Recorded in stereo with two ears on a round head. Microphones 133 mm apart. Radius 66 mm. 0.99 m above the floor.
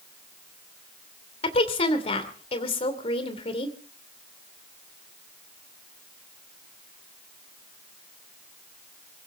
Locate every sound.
1.4 s a woman speaking: 40° left (ahead or behind), 2.5 m